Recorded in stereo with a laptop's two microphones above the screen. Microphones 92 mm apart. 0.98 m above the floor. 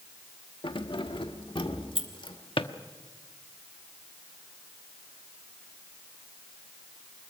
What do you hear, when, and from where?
0.6 s keys jangling: 70° left (ahead or behind), 1.1 m
2.6 s a drawer: 75° left (ahead or behind), 1.1 m